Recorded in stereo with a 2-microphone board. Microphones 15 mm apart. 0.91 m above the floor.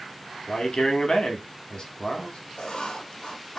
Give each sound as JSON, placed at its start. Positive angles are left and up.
{"t": 0.5, "sound": "a man speaking", "side_deg": 65, "distance_m": 1.3}
{"t": 2.6, "sound": "writing", "side_deg": 70, "distance_m": 1.3}